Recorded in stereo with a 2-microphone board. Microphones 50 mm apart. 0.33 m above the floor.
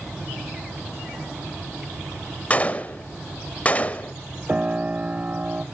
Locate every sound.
2.5 s a gunshot: 30° left (ahead or behind), 0.8 m
4.5 s a piano: 25° right (ahead or behind), 0.7 m